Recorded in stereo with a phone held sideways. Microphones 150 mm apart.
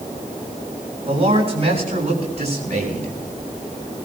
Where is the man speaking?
40° right (ahead or behind), 7 m; by 3.2 s 50° right (ahead or behind), 8 m.